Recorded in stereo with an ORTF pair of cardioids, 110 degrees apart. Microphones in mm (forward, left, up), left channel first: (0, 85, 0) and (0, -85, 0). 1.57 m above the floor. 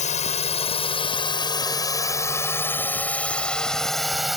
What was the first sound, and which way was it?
A drone, 45° left.